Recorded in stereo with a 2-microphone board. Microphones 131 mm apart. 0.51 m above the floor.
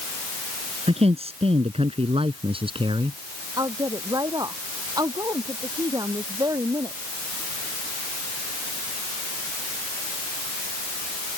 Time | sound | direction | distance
0.9 | a man speaking | 50° right (ahead or behind) | ?
3.6 | a woman speaking | 30° right (ahead or behind) | ?